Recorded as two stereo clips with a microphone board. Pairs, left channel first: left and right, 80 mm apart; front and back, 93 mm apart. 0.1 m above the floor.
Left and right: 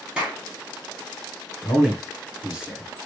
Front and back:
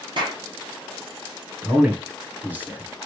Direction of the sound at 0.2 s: 165° right.